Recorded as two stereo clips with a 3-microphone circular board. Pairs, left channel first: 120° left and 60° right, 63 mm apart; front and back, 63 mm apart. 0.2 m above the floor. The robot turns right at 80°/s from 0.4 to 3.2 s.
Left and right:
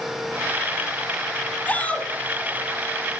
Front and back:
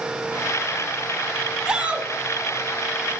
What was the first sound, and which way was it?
A shout, 125° left.